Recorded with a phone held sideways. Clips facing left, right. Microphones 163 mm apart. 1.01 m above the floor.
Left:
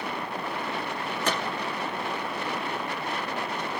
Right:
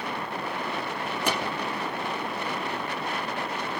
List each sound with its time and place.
1.2 s a gunshot: 10° right (ahead or behind), 1.2 m